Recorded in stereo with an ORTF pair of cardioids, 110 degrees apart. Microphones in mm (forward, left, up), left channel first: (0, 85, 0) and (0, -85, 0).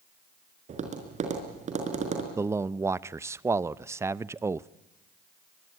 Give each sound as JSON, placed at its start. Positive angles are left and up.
{"t": 0.7, "sound": "tapping", "azimuth_deg": -45, "distance_m": 5.0}
{"t": 2.4, "sound": "a man speaking", "azimuth_deg": -15, "distance_m": 0.6}